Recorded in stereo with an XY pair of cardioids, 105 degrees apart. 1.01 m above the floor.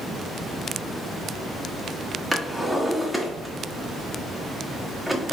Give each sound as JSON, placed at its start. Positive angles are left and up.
{"t": 2.3, "sound": "a drawer", "azimuth_deg": 0, "distance_m": 1.2}